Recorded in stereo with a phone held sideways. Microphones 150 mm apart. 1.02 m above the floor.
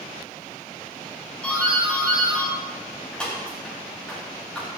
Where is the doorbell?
5° left (ahead or behind), 8 m.